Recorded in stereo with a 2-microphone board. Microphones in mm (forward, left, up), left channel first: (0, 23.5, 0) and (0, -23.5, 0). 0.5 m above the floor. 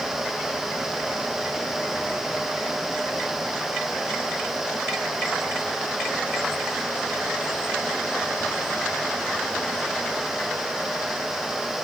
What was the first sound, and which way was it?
Only background noise.